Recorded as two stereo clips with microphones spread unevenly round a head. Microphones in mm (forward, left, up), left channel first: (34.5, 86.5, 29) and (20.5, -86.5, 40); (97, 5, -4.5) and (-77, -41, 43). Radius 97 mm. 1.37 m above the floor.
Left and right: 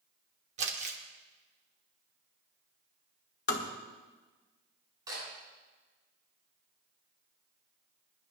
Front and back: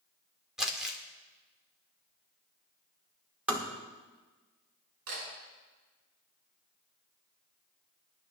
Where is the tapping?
120° left, 1.7 m.